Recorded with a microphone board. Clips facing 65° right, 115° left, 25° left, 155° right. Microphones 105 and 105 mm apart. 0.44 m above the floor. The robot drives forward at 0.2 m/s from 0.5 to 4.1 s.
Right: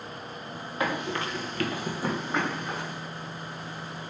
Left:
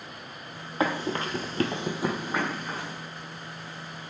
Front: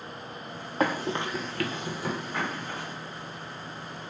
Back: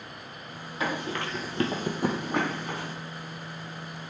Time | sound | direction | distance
0.8 | running footsteps | 55° left | 0.8 m